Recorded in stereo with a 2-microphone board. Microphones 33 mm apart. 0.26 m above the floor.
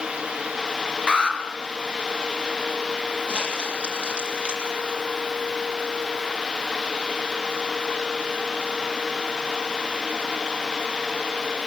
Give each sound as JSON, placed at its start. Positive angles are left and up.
{"t": 1.1, "sound": "an alarm", "side_deg": 30, "distance_m": 4.5}
{"t": 3.3, "sound": "crumpling", "side_deg": -35, "distance_m": 7.5}